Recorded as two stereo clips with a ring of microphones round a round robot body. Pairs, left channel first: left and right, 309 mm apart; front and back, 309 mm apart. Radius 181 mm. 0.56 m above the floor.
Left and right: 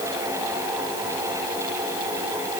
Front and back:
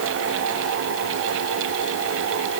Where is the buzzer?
I don't hear a buzzer.